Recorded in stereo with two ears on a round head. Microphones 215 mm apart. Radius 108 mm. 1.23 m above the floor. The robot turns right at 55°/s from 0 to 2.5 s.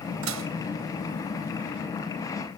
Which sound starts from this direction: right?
Dishes clattering, at 0.2 s.